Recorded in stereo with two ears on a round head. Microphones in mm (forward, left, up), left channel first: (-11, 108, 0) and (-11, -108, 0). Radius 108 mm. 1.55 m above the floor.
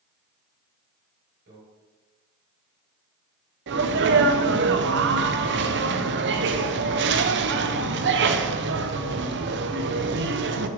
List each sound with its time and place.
1.5 s a microwave: 45° right (ahead or behind), 4.5 m
3.7 s a sneeze: 45° right (ahead or behind), 0.8 m